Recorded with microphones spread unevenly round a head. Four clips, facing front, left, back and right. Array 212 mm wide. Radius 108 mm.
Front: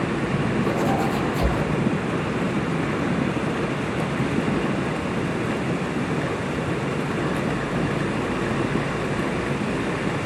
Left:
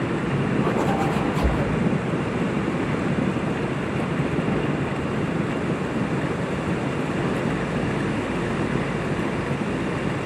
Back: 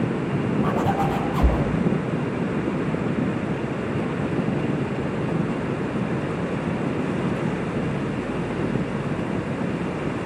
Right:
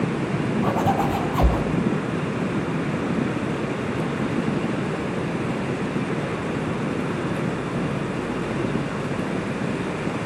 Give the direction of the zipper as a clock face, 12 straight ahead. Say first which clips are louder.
Right 3 dB, even; 4 o'clock.